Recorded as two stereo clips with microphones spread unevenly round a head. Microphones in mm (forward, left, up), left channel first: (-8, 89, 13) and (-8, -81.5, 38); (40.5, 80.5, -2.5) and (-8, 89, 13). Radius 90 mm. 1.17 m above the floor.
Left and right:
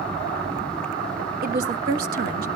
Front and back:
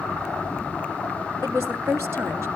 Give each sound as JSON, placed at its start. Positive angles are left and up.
{"t": 1.4, "sound": "a woman speaking", "azimuth_deg": -125, "distance_m": 1.3}